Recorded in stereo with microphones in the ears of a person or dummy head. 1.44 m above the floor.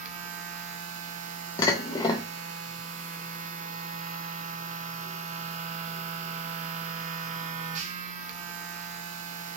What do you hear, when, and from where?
0.0 s a machine running: 45° right (ahead or behind), 0.8 m
1.6 s dishes clattering: 15° left (ahead or behind), 1.0 m